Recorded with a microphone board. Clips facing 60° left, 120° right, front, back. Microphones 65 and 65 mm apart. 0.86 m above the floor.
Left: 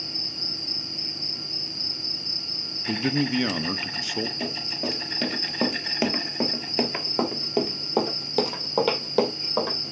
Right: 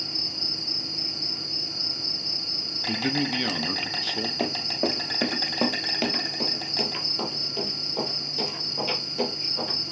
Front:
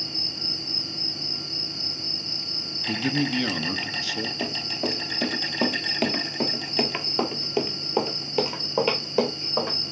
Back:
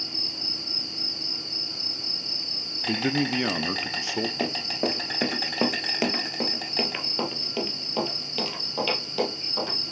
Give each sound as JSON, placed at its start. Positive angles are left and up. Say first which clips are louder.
{"t": 0.0, "sound": "an insect", "louder": "right 1 dB, front 2 dB", "azimuth_deg": -135, "distance_m": 3.0}
{"t": 2.9, "sound": "a man speaking", "louder": "left 2 dB, even", "azimuth_deg": 130, "distance_m": 0.5}
{"t": 4.4, "sound": "running footsteps", "louder": "right 4 dB, back 2 dB", "azimuth_deg": -145, "distance_m": 1.1}